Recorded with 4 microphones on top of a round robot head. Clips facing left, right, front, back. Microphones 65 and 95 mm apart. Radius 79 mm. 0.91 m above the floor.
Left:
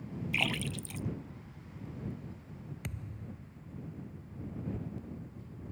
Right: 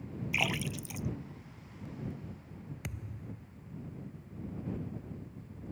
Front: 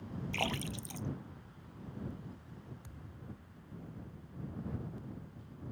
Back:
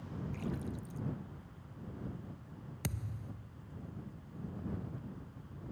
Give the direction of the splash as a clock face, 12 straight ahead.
12 o'clock.